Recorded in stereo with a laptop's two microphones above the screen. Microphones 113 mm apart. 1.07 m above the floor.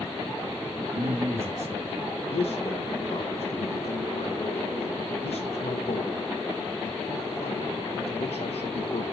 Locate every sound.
0.9 s a man speaking: 80° right, 0.9 m; by 2.1 s 75° right (ahead or behind), 2 m
2.3 s a man speaking: 65° left (ahead or behind), 0.7 m